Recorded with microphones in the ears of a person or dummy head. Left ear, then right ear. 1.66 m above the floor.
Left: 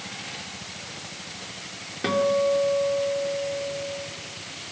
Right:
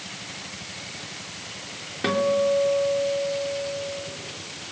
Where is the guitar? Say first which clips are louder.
Even; 10° right (ahead or behind), 3 m.